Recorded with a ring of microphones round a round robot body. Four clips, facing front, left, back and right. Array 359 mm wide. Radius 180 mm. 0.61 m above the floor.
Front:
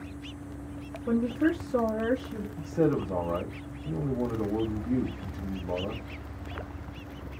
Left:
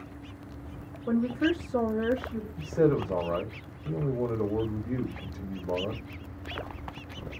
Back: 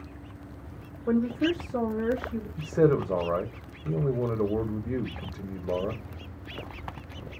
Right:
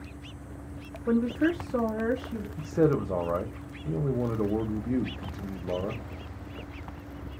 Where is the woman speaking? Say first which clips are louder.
Right 1 dB, back 1 dB; 125° right, 1.1 m; by 2.5 s 40° right, 1.4 m.